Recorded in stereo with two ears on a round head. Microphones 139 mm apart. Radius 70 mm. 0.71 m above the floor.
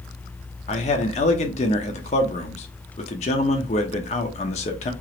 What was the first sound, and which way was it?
A man speaking, 40° left (ahead or behind).